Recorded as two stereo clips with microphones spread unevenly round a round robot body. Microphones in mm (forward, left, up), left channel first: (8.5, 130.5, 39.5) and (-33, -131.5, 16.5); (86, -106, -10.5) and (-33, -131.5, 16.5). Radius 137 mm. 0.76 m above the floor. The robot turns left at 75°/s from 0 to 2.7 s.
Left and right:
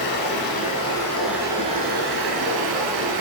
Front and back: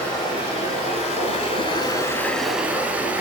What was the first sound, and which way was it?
Running water, 90° left.